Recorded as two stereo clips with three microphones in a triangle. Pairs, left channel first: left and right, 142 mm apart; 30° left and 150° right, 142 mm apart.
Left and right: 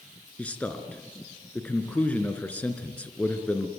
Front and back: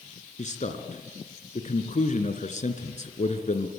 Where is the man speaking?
10° left, 2.5 m.